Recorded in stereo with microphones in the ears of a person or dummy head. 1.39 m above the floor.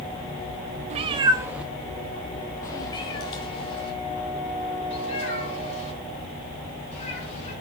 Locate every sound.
0.9 s a cat meowing: 40° right (ahead or behind), 0.9 m; by 7.5 s 40° left (ahead or behind), 5 m